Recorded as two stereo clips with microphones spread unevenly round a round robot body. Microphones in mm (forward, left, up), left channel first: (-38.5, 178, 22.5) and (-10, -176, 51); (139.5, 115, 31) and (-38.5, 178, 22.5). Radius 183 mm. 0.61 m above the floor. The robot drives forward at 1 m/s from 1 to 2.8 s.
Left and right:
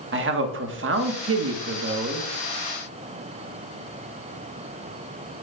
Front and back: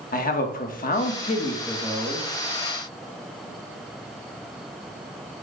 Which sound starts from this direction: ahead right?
A man speaking, at 0.1 s.